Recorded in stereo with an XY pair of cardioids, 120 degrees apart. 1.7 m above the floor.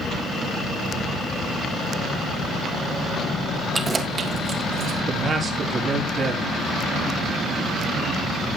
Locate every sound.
3.7 s keys jangling: 20° right, 1.7 m; by 5.0 s 50° right, 2.5 m
5.1 s a man speaking: 35° right, 4 m